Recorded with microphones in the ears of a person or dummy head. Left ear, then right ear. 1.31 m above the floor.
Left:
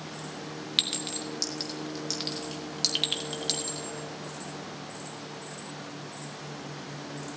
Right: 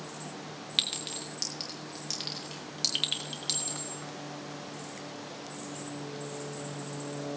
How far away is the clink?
About 1.3 m.